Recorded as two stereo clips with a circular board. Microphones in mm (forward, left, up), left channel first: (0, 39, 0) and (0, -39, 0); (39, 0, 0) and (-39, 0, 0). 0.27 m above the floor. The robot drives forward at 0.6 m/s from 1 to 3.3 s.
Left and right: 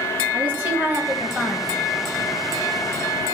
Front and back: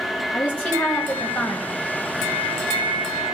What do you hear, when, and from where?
0.3 s a woman speaking: 45° right, 1.2 m; by 1.7 s 85° right, 1.1 m